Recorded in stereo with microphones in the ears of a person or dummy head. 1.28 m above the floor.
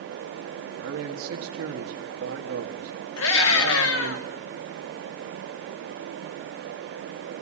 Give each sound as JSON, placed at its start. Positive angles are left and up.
{"t": 0.8, "sound": "a man speaking", "side_deg": -85, "distance_m": 1.8}
{"t": 3.2, "sound": "a scream", "side_deg": 65, "distance_m": 3.0}